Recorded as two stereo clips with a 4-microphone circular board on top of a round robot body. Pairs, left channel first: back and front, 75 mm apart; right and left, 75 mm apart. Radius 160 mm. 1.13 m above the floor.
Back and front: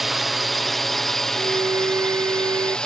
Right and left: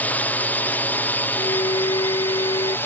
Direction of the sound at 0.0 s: 85° right.